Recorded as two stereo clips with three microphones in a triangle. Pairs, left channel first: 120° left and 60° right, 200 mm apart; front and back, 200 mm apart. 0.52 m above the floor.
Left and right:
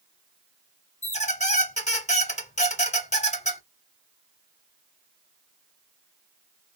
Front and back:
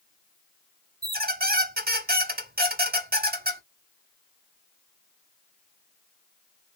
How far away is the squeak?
About 1.0 m.